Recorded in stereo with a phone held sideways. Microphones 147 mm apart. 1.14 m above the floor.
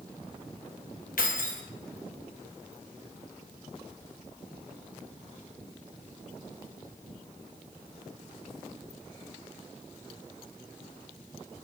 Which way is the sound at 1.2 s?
70° left (ahead or behind).